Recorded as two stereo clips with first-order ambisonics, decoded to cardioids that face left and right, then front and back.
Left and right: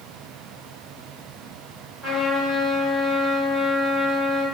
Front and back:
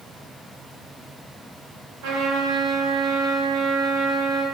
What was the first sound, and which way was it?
A trumpet, 175° left.